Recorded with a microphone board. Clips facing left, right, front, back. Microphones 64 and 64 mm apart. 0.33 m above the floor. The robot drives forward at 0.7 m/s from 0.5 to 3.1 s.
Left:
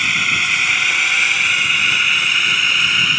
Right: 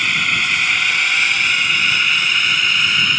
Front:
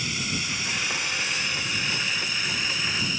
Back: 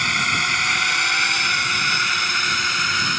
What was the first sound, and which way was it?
A drone, straight behind.